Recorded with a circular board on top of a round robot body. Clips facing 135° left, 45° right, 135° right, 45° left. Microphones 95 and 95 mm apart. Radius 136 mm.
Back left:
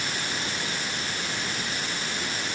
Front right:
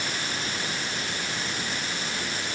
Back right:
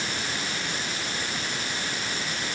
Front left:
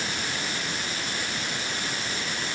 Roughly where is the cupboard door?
No cupboard door in this recording.